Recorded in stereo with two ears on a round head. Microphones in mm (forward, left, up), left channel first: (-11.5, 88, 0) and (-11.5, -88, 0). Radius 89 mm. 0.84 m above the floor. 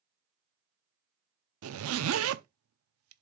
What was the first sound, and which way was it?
A zipper, 75° right (ahead or behind).